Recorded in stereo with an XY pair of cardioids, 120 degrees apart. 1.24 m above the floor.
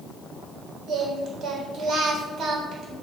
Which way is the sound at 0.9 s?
55° right.